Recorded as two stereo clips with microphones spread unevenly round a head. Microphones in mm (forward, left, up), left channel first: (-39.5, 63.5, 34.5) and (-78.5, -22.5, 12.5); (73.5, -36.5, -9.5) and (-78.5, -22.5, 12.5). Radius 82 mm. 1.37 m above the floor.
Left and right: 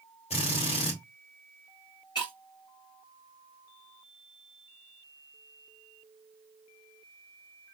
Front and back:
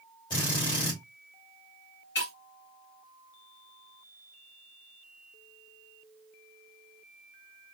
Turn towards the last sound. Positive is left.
turn(degrees=10)